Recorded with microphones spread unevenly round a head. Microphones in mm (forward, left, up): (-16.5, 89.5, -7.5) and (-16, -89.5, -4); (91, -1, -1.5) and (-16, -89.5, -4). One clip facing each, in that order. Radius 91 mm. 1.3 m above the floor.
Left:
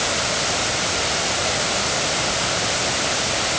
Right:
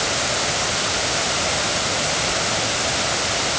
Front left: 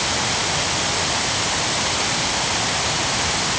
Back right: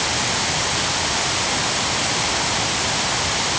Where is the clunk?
No clunk in this recording.